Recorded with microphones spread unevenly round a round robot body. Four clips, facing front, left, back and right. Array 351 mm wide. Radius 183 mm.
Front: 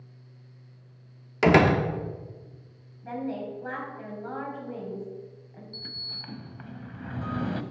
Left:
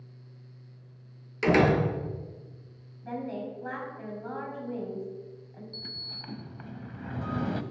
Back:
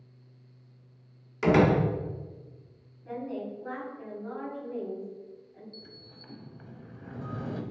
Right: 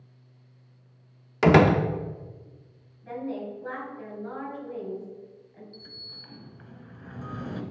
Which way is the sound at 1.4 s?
45° right.